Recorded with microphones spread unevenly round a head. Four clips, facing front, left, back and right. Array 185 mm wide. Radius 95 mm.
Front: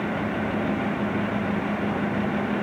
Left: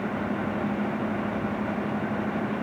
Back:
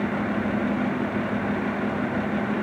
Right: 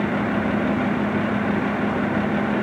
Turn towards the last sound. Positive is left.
No sound to turn to.